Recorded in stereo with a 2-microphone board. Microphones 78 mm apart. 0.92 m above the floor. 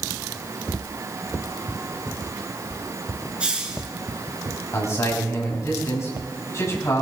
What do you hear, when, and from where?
3.4 s a hiss: 15° right (ahead or behind), 2.5 m
4.7 s a man speaking: 40° left (ahead or behind), 6 m